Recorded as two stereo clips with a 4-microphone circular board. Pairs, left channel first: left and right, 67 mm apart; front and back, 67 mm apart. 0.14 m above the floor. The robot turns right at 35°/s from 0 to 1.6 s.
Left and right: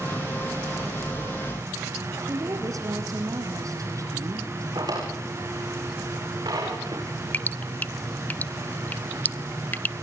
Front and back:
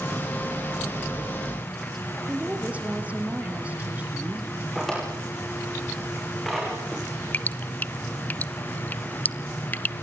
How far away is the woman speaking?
About 3.5 m.